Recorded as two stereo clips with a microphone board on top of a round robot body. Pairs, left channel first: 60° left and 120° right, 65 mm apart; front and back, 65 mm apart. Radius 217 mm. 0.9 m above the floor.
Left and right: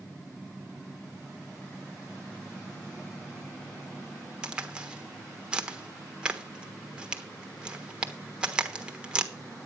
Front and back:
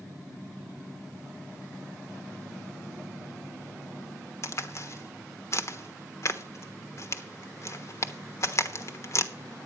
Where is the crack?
45° right, 1.2 m.